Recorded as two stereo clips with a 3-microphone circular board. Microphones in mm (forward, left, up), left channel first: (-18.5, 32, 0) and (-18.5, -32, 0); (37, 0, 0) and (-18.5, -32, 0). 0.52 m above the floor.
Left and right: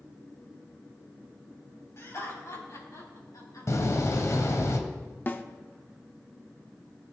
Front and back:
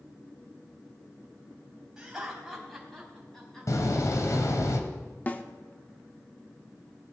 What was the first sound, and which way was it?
Laughter, 135° left.